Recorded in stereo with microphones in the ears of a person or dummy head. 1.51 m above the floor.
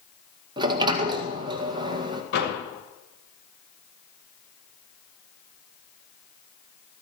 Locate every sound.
0.6 s a sliding door: 25° right (ahead or behind), 1.8 m
2.3 s a door slam: 70° left (ahead or behind), 6.5 m